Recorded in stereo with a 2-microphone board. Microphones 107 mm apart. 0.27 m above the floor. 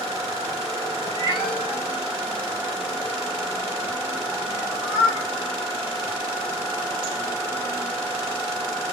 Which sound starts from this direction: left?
A cat meowing, at 1.1 s.